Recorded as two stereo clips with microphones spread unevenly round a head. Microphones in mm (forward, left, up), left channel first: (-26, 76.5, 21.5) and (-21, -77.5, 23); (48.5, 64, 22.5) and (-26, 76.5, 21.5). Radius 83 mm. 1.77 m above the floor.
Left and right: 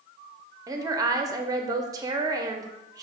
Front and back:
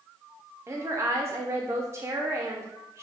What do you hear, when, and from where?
0.7 s a woman speaking: 145° right, 0.6 m